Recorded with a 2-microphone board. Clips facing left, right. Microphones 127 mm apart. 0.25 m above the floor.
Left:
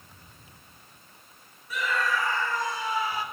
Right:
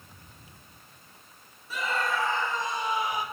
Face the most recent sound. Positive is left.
turn(degrees=-15)  # may be behind; listen again after turning